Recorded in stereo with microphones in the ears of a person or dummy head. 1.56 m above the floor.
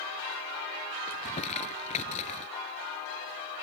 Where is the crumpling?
45° left (ahead or behind).